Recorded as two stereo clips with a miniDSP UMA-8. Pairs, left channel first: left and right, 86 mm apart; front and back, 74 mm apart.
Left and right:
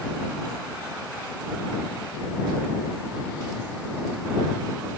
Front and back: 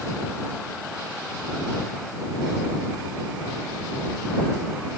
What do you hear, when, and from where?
Only background noise.